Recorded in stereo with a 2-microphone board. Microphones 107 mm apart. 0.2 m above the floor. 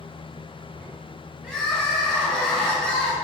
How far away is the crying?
About 1.8 m.